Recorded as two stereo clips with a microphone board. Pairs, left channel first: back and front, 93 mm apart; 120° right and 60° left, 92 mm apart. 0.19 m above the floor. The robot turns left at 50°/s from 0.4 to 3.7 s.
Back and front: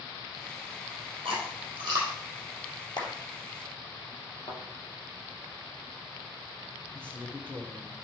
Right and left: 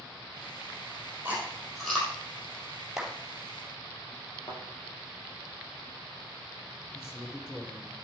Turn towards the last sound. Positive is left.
turn(degrees=-115)